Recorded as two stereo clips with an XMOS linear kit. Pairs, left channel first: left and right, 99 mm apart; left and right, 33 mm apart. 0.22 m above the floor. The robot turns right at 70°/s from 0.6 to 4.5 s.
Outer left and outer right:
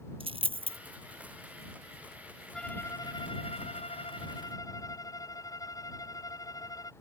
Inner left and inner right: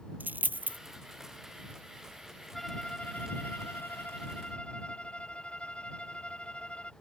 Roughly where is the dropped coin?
Right.